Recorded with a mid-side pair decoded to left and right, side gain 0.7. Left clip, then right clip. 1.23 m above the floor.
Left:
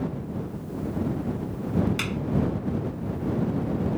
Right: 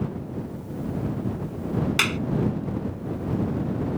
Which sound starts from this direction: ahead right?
A clap, at 2.0 s.